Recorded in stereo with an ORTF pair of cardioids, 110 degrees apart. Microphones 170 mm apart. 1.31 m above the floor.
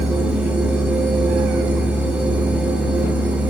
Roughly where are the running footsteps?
No running footsteps in this recording.